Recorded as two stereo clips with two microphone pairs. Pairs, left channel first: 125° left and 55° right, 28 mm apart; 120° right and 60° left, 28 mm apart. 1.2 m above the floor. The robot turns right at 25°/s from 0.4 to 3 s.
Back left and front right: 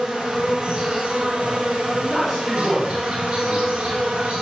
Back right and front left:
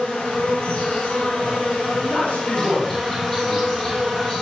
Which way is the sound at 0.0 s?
115° right.